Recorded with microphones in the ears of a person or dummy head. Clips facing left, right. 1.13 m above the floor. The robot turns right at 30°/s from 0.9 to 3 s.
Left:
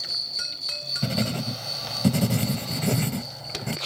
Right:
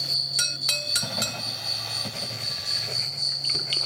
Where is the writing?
40° left; by 3.8 s 100° left.